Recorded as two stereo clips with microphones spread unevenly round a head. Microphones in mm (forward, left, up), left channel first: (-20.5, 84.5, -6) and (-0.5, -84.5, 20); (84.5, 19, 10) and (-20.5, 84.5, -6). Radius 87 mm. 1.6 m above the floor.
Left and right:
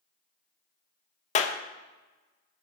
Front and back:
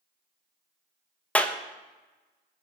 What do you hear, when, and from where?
1.4 s a clap: 45° left, 1.3 m